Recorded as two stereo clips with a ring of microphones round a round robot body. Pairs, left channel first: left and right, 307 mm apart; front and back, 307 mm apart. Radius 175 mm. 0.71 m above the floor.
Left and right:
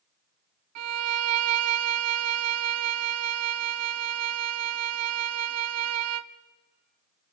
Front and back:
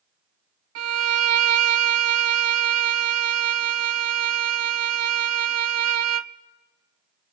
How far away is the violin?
About 0.6 m.